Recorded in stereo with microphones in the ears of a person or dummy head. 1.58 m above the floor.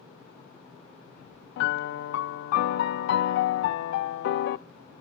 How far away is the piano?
About 0.5 m.